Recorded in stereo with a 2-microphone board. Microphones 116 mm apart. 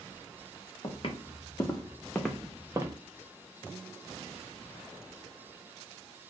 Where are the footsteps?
50° left (ahead or behind), 1.0 m; by 3.0 s 30° right (ahead or behind), 0.7 m.